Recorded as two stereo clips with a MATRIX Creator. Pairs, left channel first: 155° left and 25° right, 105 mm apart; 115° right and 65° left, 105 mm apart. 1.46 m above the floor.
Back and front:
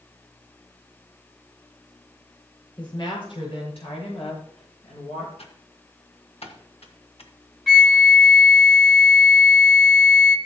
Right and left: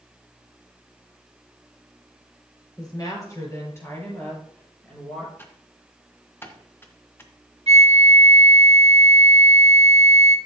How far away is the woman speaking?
About 5.5 m.